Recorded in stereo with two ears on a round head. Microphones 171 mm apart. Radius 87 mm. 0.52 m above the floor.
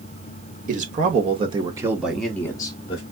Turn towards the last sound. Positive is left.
turn(degrees=35)  # may be behind; listen again after turning